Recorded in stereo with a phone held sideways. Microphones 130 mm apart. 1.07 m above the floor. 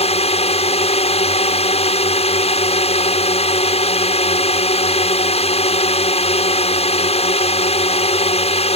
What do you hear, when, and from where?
0.0 s a drone: 50° left (ahead or behind)